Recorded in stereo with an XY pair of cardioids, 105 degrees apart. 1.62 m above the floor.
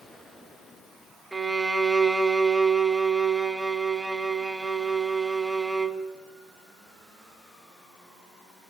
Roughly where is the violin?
Ahead.